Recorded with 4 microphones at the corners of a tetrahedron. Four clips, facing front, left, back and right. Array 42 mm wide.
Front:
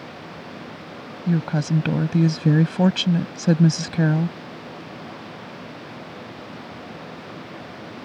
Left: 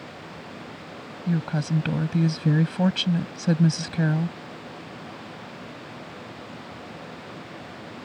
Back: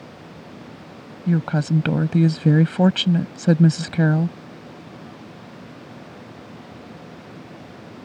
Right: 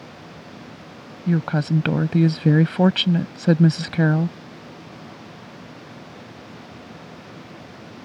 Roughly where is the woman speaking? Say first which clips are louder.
Right 5 dB, back 1 dB; behind right.